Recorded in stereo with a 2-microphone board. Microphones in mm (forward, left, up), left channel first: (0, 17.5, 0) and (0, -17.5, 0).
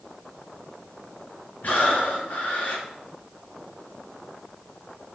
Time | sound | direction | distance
1.6 | breathing | 60° left (ahead or behind) | 1.3 m